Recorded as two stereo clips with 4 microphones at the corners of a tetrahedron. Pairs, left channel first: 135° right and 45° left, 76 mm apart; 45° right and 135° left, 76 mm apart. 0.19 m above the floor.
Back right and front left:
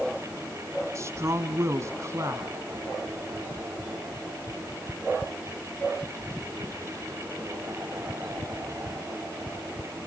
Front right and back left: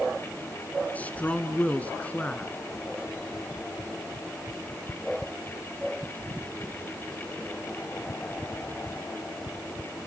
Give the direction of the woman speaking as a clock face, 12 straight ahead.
11 o'clock.